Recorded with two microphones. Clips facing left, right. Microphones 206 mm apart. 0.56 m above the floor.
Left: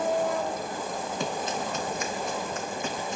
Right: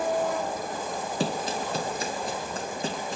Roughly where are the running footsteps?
Right.